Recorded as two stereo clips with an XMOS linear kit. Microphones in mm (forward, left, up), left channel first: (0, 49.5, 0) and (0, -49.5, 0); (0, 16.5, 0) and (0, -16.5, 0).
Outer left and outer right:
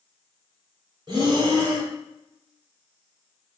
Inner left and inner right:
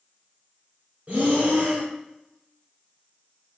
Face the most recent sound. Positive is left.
turn(degrees=-50)  # may be behind; listen again after turning